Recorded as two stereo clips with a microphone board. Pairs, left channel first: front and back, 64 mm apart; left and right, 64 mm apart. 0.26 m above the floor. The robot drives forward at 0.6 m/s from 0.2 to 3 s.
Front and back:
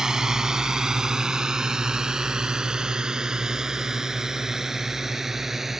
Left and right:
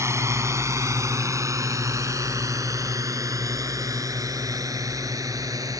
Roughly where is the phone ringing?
I don't hear a phone ringing.